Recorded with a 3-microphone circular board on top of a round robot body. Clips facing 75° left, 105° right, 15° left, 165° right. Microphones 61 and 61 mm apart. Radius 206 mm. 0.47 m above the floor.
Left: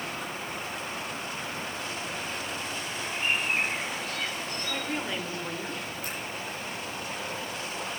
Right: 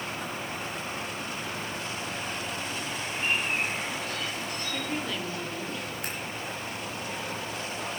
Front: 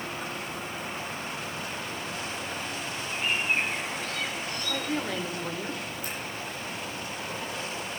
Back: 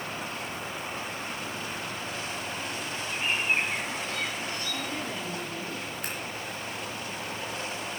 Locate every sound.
3.1 s a bird: 125° left, 4 m
4.7 s a woman speaking: 5° left, 2.5 m
6.0 s scissors: 135° right, 3.5 m